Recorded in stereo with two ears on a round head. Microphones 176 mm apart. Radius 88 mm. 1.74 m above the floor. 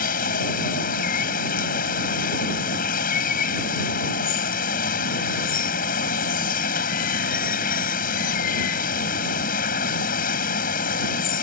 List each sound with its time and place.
0.0 s running water: 45° left (ahead or behind)